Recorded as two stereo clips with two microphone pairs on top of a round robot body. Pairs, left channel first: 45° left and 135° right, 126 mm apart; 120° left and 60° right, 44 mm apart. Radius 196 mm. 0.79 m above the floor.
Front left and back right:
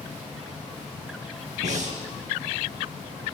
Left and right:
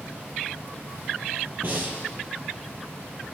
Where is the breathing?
105° right, 4 m.